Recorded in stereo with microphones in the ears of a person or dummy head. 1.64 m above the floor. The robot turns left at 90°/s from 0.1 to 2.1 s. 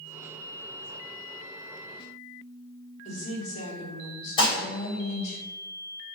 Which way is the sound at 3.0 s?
45° left (ahead or behind).